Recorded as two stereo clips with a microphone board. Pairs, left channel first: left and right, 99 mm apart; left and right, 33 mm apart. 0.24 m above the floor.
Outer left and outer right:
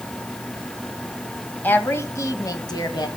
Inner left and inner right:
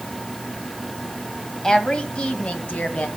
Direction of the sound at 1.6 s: 20° left (ahead or behind).